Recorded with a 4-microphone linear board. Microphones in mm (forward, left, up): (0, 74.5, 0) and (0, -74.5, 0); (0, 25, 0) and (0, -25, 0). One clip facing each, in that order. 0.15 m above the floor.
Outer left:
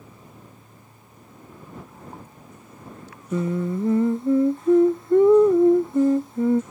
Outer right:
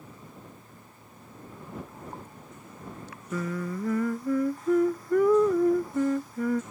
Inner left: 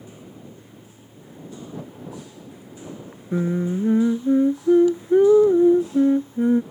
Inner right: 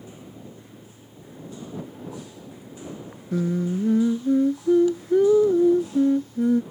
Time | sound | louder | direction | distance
3.3 | singing | outer left 7 dB, inner left 2 dB | 25° left (ahead or behind) | ?